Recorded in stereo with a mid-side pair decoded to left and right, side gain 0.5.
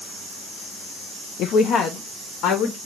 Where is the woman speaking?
70° left, 0.6 m; by 2.8 s 75° left, 1.3 m.